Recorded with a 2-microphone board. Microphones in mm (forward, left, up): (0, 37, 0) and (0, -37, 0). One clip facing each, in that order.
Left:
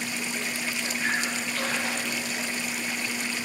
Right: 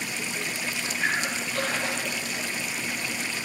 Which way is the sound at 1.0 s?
70° right (ahead or behind).